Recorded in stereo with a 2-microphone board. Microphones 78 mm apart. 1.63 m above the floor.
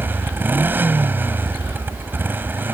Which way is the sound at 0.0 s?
25° right (ahead or behind).